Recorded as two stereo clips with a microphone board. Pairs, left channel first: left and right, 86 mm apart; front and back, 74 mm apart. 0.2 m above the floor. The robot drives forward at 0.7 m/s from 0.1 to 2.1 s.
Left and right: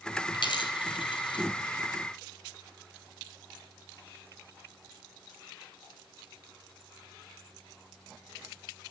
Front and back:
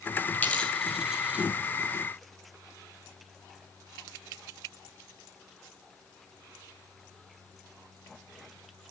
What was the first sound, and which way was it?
A dropped coin, 65° left.